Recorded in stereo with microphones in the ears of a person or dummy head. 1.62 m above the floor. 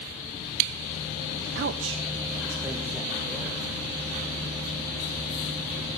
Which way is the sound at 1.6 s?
55° right (ahead or behind).